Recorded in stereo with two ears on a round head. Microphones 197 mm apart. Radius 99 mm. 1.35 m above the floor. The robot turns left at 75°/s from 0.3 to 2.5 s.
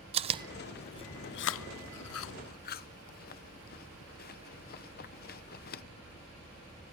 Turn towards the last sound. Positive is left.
turn(degrees=45)  # may be behind; listen again after turning